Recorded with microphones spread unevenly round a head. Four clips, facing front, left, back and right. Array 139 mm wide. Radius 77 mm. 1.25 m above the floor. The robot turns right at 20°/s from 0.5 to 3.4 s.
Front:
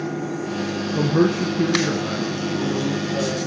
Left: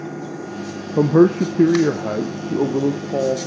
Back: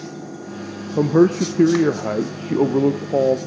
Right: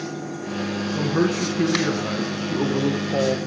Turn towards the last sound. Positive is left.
turn(degrees=170)